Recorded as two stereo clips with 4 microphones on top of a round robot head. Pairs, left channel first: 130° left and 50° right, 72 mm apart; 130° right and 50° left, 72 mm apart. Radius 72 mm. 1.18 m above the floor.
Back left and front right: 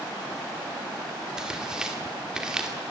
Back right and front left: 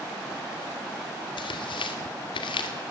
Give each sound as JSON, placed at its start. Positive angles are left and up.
{"t": 1.4, "sound": "tearing paper", "azimuth_deg": -130, "distance_m": 2.0}